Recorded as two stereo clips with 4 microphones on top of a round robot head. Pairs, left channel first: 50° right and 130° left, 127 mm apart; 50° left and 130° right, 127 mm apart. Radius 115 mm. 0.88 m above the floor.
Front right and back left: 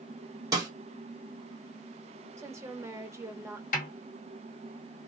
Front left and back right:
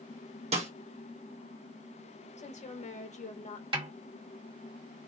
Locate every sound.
0.5 s a snare drum: 170° right, 1.3 m
2.4 s a woman speaking: 65° left, 1.3 m
3.7 s a snare drum: 75° right, 1.3 m